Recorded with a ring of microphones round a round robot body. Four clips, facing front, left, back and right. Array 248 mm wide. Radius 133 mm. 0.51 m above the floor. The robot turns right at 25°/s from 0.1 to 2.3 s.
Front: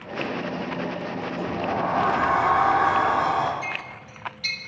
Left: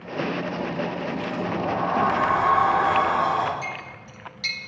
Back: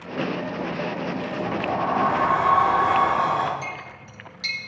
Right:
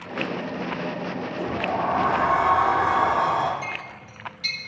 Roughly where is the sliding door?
Behind left.